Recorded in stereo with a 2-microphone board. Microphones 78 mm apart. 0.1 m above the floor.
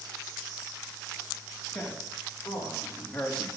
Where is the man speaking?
5° left (ahead or behind), 8 m; by 3.5 s 10° left (ahead or behind), 6.5 m.